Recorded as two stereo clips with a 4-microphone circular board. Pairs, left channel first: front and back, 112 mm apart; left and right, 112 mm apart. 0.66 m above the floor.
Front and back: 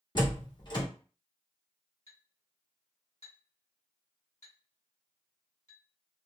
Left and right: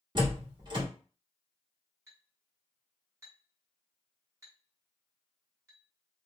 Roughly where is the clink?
Ahead right.